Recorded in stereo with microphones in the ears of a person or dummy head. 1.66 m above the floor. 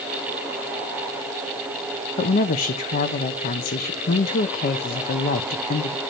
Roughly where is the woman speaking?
Left.